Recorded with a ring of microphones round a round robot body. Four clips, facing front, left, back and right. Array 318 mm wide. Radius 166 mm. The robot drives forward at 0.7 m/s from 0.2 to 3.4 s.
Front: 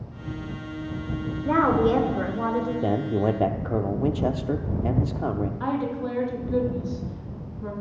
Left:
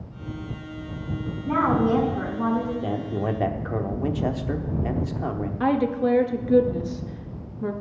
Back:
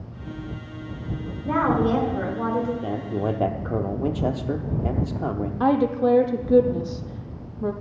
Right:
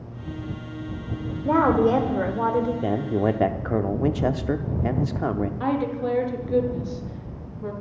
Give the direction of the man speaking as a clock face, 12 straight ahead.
1 o'clock.